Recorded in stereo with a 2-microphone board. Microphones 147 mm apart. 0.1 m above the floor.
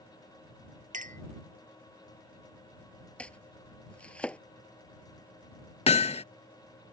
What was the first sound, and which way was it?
A clink, 60° right (ahead or behind).